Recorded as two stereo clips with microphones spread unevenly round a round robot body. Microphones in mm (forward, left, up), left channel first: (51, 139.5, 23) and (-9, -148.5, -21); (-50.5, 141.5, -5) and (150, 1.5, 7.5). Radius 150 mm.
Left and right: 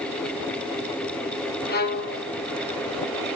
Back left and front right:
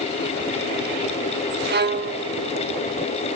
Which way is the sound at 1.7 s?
15° left.